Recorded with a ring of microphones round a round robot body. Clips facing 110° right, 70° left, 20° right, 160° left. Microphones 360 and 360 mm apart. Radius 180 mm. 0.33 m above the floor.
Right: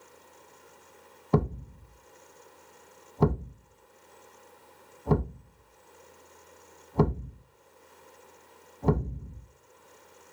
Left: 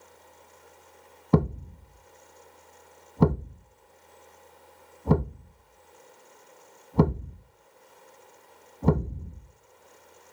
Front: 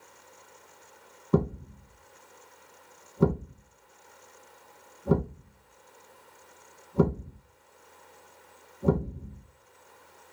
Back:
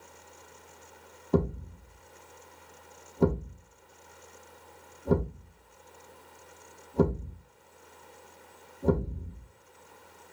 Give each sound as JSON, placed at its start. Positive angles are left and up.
{"t": 1.3, "sound": "a thud", "azimuth_deg": 55, "distance_m": 0.7}